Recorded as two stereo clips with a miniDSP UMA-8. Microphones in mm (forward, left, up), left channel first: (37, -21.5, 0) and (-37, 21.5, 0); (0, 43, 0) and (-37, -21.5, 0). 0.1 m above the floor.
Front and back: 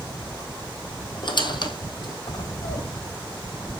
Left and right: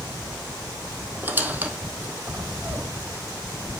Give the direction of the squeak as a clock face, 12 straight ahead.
2 o'clock.